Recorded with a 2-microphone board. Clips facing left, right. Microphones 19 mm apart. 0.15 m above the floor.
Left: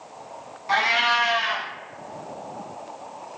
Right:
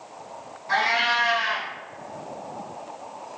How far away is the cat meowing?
About 1.5 m.